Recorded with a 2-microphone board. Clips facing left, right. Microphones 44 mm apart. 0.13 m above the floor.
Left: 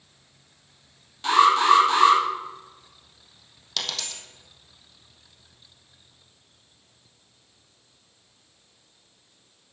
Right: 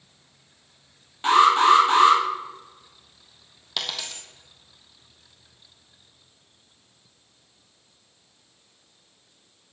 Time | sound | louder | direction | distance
1.2 | an alarm | right 1 dB | 30° right (ahead or behind) | 4.5 m
3.8 | a dropped coin | right 1 dB | 15° right (ahead or behind) | 2.5 m